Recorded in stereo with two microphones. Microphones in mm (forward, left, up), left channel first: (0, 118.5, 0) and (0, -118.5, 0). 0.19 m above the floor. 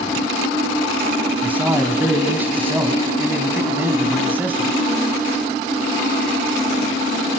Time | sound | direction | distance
1.4 | a man speaking | 10° right (ahead or behind) | 1.7 m